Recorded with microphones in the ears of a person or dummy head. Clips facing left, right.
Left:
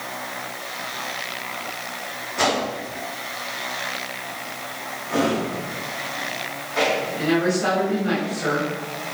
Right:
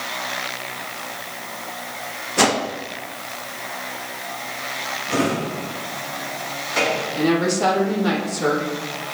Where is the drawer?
45° right (ahead or behind), 6 m.